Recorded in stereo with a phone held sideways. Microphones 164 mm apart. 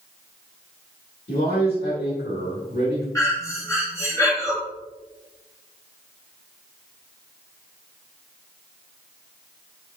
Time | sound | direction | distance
1.3 | a man speaking | 70° left (ahead or behind) | 2.5 m
3.1 | breathing | 20° left (ahead or behind) | 2 m